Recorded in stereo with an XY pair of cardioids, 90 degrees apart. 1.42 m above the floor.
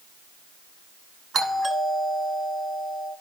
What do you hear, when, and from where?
1.3 s a doorbell: 55° right, 5.5 m